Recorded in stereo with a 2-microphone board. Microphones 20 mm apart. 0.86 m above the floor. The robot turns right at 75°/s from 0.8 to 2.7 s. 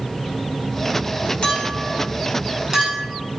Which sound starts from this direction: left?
A clink, at 1.4 s.